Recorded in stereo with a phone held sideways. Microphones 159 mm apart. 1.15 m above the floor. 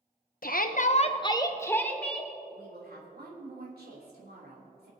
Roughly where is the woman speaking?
Right.